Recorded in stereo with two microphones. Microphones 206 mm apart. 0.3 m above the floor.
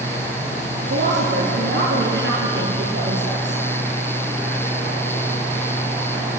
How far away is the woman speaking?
About 6 m.